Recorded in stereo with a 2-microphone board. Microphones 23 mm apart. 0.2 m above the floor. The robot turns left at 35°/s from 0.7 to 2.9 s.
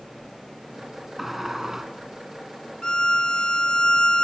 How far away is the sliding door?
About 2.5 m.